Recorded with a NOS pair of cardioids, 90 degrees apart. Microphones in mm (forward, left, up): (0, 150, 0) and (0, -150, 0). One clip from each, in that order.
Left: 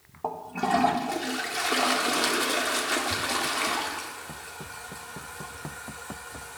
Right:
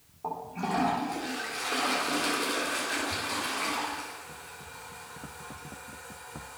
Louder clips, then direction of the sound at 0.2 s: Left 5 dB; 55° left.